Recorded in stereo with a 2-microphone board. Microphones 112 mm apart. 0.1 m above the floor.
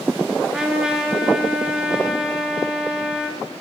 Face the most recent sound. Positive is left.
turn(degrees=-5)  # may be behind; listen again after turning